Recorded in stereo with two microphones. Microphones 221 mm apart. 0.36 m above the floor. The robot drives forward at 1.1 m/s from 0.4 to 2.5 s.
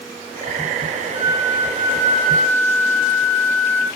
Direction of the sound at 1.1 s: 30° right (ahead or behind).